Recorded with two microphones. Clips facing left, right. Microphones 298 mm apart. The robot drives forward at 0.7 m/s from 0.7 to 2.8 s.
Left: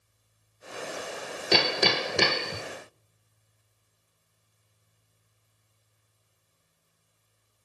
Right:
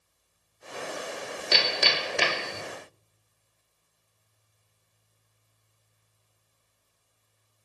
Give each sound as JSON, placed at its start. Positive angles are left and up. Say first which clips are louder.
{"t": 1.5, "sound": "hammering", "louder": "left 6 dB", "side_deg": 60, "distance_m": 1.2}